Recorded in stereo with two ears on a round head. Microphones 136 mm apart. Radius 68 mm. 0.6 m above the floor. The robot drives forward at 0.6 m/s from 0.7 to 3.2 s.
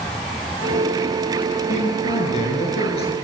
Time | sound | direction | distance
1.7 | a man speaking | 50° left (ahead or behind) | 8.5 m